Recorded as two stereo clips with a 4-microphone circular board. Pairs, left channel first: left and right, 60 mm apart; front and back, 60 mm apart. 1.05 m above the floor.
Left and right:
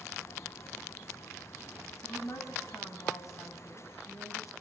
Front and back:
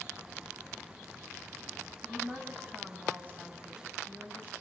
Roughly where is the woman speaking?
Behind left.